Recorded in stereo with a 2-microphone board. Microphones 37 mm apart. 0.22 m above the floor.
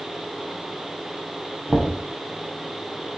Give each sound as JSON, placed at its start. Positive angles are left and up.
{"t": 1.7, "sound": "knocking", "side_deg": -20, "distance_m": 0.7}